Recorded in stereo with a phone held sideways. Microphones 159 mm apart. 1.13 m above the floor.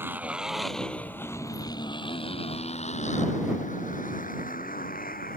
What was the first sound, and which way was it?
A motorcycle, 15° right (ahead or behind).